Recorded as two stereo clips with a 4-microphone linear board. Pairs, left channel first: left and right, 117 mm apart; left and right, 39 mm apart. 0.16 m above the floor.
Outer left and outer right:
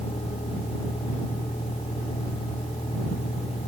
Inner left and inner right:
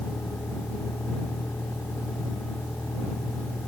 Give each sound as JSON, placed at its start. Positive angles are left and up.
{"t": 0.0, "sound": "a vehicle", "side_deg": 65}